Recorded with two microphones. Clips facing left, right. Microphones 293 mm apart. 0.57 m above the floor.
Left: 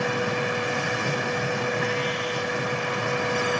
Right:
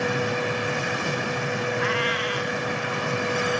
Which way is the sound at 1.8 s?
85° right.